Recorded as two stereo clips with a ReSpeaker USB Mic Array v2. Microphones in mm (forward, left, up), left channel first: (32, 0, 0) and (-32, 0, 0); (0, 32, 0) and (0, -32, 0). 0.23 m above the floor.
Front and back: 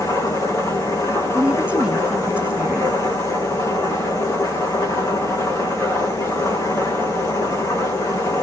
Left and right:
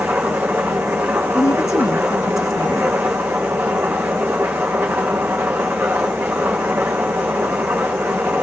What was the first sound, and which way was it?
An engine running, 30° right.